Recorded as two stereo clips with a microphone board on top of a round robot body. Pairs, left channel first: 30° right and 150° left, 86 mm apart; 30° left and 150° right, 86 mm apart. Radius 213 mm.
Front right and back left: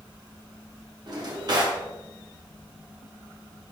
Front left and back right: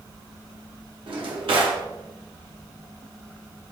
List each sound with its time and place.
1.1 s a drawer: 170° right, 1.6 m